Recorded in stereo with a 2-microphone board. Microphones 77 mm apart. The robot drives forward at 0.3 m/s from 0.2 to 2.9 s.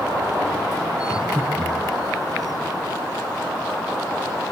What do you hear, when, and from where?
1.1 s breathing: 20° right (ahead or behind), 7 m